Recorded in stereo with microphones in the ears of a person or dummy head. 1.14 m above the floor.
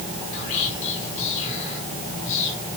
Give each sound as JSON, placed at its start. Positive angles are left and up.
{"t": 0.3, "sound": "whispering", "side_deg": 50, "distance_m": 3.5}